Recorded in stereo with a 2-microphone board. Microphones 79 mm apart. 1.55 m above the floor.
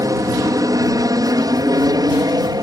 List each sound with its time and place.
0.0 s an aircraft: 50° right (ahead or behind); by 2.6 s 55° right (ahead or behind)